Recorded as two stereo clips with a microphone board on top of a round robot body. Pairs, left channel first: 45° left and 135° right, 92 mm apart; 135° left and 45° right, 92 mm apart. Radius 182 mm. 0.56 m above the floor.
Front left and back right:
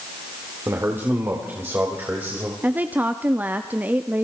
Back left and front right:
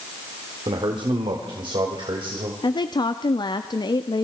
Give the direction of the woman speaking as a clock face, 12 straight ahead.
7 o'clock.